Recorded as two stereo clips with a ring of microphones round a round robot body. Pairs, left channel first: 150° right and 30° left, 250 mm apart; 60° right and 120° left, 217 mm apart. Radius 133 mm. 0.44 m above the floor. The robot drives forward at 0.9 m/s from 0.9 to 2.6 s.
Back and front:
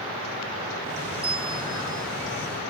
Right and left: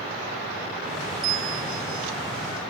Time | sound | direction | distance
1.2 | a bell | 100° left | ?